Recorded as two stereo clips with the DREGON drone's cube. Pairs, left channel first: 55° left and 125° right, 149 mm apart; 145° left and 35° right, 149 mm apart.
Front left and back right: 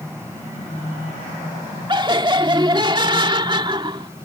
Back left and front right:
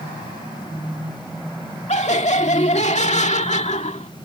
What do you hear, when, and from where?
1.9 s laughter: straight behind